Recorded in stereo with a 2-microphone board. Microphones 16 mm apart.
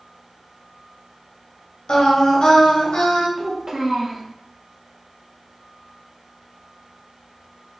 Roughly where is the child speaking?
Right.